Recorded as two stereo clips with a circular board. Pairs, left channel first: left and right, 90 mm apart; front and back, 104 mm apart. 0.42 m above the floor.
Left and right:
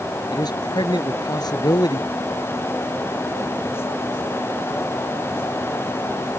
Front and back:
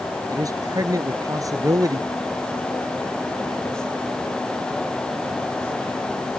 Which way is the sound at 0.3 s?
125° left.